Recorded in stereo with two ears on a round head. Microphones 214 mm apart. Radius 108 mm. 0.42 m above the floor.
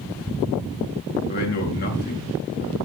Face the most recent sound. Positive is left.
turn(degrees=45)  # may be behind; listen again after turning